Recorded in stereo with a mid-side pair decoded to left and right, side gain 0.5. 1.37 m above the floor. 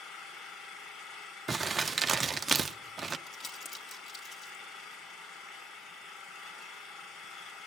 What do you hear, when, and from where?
0.0 s an engine running: 60° left, 6.5 m
1.5 s crumpling: 30° right, 0.8 m
3.3 s crumpling: 40° left, 3 m